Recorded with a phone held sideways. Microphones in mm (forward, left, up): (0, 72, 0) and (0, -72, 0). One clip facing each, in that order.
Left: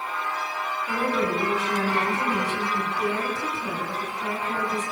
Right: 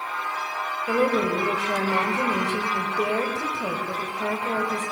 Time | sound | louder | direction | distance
0.9 | a woman speaking | right 4 dB | 80° right | 6.5 m